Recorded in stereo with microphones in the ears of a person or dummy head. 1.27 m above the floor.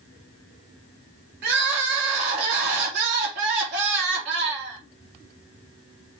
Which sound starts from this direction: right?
Crying, at 1.4 s.